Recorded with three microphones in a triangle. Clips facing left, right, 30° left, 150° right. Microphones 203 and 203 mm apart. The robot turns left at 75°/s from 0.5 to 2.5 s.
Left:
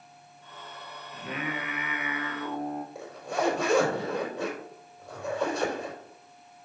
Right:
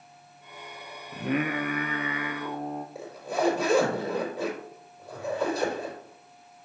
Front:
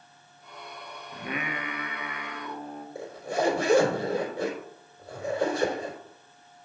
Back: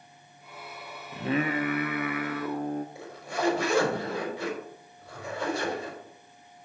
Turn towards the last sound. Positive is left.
turn(degrees=-5)